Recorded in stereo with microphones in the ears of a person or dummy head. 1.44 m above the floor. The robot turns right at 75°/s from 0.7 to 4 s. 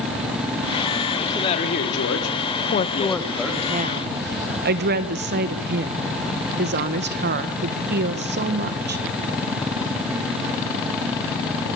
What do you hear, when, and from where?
1.2 s a man speaking: 5° left, 3 m; by 3.7 s 165° right, 3 m
2.7 s a woman speaking: 135° left, 1.6 m; by 9.0 s 125° right, 1.6 m